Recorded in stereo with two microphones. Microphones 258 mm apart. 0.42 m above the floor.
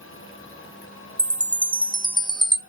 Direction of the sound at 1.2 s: 15° right (ahead or behind).